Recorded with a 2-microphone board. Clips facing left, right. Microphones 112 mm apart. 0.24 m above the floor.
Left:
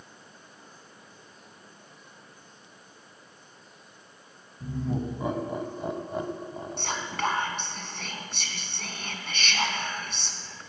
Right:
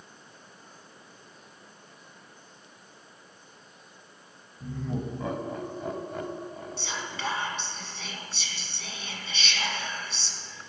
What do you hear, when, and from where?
4.6 s laughter: 10° left (ahead or behind), 1.4 m; by 7.2 s 20° left (ahead or behind), 1.2 m
6.8 s whispering: 55° left (ahead or behind), 2.0 m